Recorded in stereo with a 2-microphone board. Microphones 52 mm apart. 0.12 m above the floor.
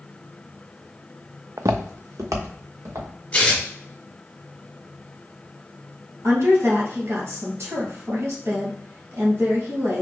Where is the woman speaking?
60° right (ahead or behind), 2 m.